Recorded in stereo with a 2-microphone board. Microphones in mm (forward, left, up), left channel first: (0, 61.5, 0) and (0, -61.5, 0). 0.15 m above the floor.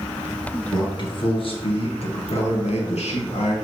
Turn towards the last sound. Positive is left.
turn(degrees=65)  # may be behind; listen again after turning